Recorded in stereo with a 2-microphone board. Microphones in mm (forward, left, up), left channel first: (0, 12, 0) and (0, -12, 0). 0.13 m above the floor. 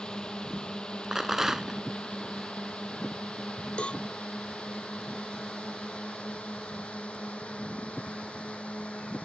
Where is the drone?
40° left (ahead or behind); by 9.3 s 70° left (ahead or behind).